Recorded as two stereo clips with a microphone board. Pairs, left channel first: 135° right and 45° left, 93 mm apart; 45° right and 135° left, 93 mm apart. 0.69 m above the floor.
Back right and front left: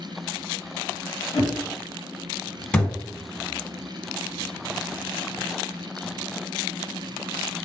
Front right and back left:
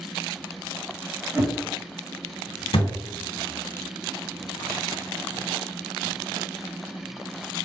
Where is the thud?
60° right, 1.0 m.